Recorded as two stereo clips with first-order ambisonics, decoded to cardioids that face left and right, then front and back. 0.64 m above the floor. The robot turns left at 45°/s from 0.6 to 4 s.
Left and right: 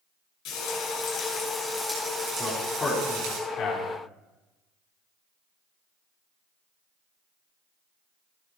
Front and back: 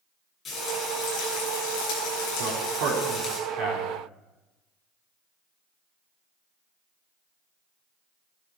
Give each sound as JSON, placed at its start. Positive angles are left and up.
{"t": 0.5, "sound": "frying", "azimuth_deg": 60, "distance_m": 8.5}
{"t": 2.4, "sound": "a man speaking", "azimuth_deg": -165, "distance_m": 5.5}